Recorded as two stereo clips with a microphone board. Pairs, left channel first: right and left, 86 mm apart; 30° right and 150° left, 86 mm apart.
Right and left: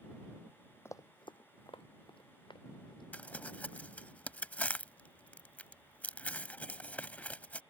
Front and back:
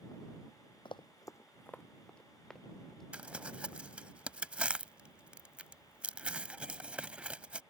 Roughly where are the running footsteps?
Ahead right.